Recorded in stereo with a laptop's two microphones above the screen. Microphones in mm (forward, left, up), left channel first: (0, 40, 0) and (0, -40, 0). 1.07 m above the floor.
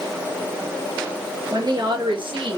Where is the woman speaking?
45° right (ahead or behind), 1.4 m; by 2.6 s 80° right, 1.3 m.